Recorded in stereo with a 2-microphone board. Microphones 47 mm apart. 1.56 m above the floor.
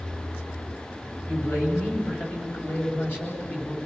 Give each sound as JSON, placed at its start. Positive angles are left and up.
{"t": 1.3, "sound": "a man speaking", "side_deg": 55, "distance_m": 9.0}